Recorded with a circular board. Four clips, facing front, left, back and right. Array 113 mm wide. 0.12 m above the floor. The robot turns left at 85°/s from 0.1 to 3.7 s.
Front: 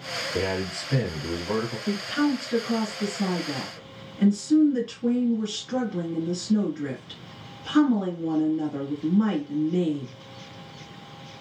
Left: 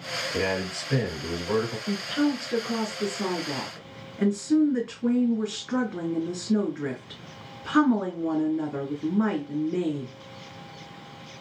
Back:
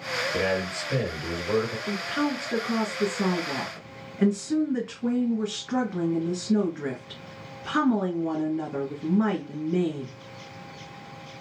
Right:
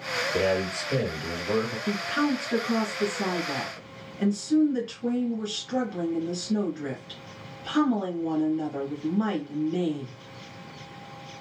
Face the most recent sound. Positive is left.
turn(degrees=135)